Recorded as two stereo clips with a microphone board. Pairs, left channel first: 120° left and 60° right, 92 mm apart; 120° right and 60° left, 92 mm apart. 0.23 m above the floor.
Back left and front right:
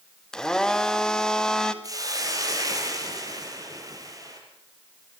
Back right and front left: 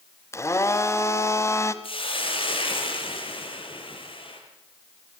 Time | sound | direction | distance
0.3 | a blender | 160° right | 1.5 m
1.8 | a hiss | 110° right | 5 m